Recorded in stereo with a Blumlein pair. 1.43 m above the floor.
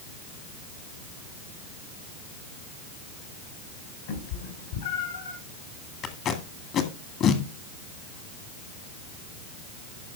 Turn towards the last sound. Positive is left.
turn(degrees=30)